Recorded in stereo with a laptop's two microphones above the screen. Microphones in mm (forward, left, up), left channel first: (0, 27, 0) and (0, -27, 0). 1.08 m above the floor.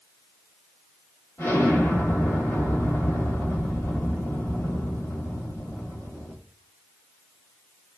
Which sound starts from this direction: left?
An explosion, at 1.4 s.